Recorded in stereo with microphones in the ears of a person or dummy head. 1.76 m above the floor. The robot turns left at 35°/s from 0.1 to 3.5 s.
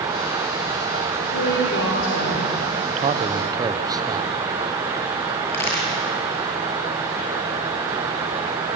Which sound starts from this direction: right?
A man speaking, at 2.9 s.